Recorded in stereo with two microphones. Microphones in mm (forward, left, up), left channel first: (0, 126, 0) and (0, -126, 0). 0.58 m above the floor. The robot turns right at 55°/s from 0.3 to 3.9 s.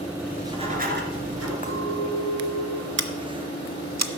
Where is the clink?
150° left, 2.5 m; by 2.9 s 145° right, 2.5 m.